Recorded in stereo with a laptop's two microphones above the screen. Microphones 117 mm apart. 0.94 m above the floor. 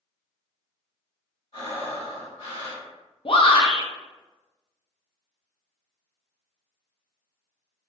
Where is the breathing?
70° left (ahead or behind), 1.5 m.